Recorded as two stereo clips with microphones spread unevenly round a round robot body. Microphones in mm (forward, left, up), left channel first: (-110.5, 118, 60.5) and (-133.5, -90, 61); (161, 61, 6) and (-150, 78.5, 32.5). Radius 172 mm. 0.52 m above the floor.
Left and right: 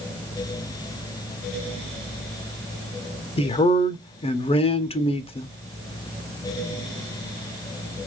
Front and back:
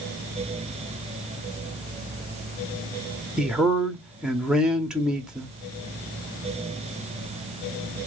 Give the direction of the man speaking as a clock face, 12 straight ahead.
9 o'clock.